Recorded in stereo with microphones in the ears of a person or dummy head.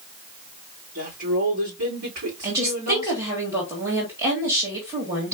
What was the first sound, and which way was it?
A woman speaking, 65° right (ahead or behind).